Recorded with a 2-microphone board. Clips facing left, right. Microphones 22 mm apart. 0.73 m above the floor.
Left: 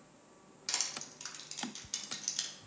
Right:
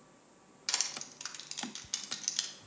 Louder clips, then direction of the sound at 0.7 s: Right 2 dB; 25° right (ahead or behind).